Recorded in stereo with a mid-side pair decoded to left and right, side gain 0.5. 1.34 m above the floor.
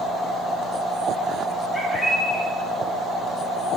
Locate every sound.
1.7 s a bird: 15° left, 2.5 m